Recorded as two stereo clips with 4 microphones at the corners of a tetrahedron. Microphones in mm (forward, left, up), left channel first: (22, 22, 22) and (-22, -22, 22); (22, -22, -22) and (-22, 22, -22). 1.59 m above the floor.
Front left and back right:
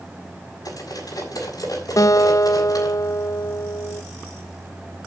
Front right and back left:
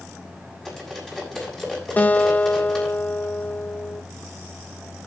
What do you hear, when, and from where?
0.7 s cutlery clinking: 35° left, 6.5 m
2.0 s a guitar: 20° left, 0.5 m